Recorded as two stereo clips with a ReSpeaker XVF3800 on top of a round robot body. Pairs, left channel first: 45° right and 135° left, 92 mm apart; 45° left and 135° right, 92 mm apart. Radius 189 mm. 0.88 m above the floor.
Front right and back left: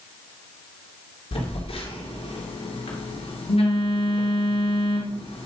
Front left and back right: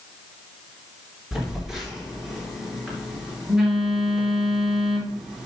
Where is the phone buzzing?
50° right, 2.5 m.